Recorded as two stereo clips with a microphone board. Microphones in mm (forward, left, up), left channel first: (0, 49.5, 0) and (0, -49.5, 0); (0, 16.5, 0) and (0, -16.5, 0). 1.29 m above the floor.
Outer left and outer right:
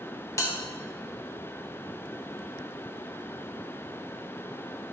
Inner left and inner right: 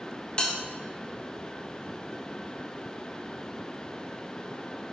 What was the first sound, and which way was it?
A bell, 30° left (ahead or behind).